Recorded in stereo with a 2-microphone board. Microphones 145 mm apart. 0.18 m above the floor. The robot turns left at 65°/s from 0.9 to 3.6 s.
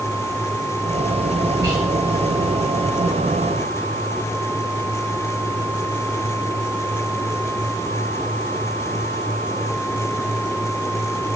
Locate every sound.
1.6 s whispering: 30° right (ahead or behind), 1.9 m; by 1.8 s 20° right (ahead or behind), 1.9 m